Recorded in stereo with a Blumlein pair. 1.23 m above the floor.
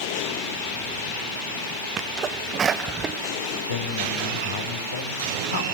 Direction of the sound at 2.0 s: 25° right.